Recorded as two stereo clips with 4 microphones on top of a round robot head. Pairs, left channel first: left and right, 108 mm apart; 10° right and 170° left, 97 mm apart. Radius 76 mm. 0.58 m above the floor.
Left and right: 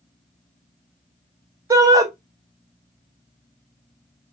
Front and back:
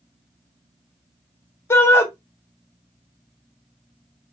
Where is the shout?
60° right, 0.8 m.